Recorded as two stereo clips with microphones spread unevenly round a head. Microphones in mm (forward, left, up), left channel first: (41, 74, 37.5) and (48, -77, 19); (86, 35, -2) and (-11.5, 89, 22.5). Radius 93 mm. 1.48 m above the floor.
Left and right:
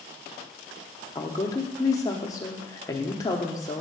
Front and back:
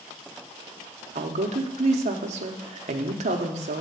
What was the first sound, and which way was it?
A woman speaking, 165° left.